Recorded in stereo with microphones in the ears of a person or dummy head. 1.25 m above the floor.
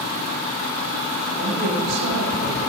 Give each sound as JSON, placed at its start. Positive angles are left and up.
{"t": 1.4, "sound": "a woman speaking", "side_deg": -70, "distance_m": 5.5}